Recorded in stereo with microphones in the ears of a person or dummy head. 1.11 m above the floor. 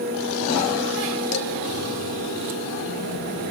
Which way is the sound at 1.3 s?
65° left (ahead or behind).